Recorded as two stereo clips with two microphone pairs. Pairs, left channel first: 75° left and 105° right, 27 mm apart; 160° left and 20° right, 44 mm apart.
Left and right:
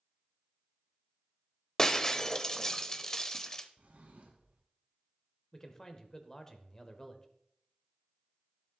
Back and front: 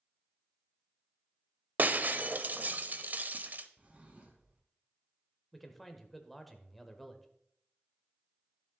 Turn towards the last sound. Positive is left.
turn(degrees=80)